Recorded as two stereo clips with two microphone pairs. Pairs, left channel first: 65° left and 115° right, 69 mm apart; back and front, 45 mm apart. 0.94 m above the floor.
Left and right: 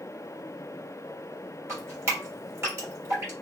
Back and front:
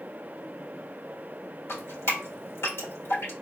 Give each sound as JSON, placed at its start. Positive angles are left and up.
{"t": 1.7, "sound": "dripping", "azimuth_deg": -165, "distance_m": 1.5}